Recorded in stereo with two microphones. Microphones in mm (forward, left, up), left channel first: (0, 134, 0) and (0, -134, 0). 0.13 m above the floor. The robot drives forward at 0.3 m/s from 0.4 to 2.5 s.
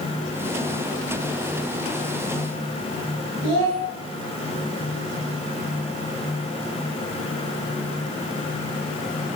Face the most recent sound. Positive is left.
turn(degrees=55)  # may be behind; listen again after turning